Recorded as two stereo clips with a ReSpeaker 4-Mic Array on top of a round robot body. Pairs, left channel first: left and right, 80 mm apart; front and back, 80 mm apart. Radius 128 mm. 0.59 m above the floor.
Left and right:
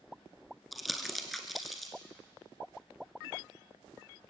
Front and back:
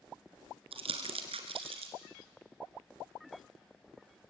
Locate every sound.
0.7 s crumpling: straight behind, 1.5 m